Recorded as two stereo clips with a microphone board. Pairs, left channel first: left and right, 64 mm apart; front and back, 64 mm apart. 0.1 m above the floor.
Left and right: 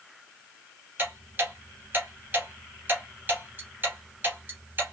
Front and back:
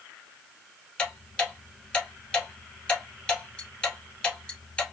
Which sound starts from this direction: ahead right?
Ticking, at 1.0 s.